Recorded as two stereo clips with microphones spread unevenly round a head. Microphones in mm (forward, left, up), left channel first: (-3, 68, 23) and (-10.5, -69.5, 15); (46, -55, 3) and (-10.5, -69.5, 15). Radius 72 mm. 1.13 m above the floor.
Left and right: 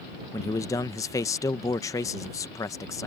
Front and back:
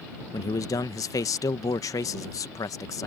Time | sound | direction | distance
0.3 | a man speaking | 20° left | ?